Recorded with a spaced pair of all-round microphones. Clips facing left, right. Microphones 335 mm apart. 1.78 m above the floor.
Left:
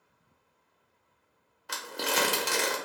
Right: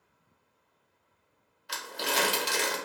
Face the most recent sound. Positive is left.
turn(degrees=60)  # may be behind; listen again after turning